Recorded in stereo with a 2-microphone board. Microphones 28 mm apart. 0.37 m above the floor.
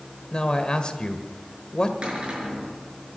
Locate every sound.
0.3 s a man speaking: 35° left (ahead or behind), 1.5 m
2.0 s a cupboard door: 45° right (ahead or behind), 6.5 m